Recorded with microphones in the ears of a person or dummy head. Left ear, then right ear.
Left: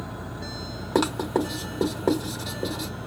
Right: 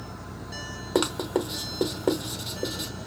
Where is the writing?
10° right (ahead or behind), 1.1 m.